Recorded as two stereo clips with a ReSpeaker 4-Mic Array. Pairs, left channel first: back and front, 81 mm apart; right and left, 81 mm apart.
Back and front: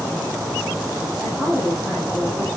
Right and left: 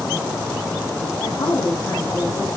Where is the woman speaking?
85° right, 6 m.